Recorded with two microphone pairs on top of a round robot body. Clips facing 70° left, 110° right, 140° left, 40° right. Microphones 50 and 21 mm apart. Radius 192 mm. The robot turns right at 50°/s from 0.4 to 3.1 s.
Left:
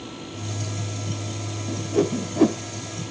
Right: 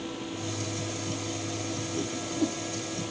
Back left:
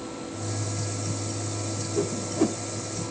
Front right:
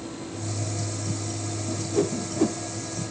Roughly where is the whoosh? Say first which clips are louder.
Left 14 dB, front right 4 dB; ahead.